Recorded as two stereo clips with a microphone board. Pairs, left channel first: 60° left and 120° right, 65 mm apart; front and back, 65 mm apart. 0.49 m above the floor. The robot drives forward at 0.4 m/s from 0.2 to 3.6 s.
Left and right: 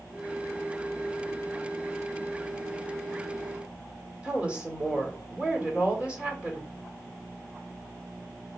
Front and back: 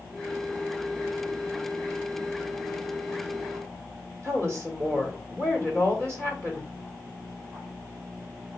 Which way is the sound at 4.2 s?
Straight behind.